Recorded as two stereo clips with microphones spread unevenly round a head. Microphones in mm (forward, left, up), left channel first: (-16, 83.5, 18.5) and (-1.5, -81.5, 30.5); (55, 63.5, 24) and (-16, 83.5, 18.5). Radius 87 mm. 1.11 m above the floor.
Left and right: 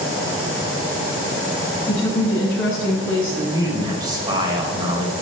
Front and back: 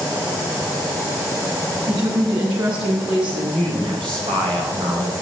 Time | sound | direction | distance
1.9 | a woman speaking | straight behind | 6.5 m
3.5 | a man speaking | 150° right | 4 m